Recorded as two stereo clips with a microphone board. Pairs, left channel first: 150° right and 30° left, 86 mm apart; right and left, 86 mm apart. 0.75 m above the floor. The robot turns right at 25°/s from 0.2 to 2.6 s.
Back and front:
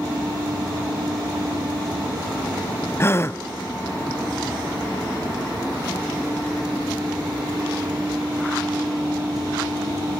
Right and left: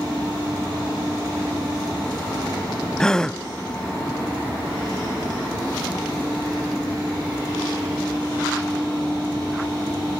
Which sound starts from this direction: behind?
A gasp, at 3.0 s.